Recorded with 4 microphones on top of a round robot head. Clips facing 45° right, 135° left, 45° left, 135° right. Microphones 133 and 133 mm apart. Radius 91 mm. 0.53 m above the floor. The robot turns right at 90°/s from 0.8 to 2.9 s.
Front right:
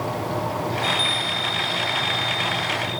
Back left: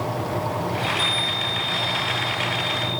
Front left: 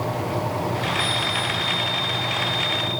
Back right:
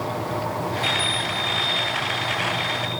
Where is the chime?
105° right, 3.5 m; by 3.0 s 80° left, 3.5 m.